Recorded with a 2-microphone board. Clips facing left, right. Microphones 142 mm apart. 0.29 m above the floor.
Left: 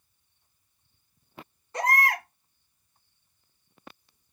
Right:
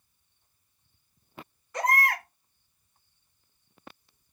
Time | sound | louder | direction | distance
1.7 | a baby crying | left 1 dB | 30° left (ahead or behind) | 2.5 m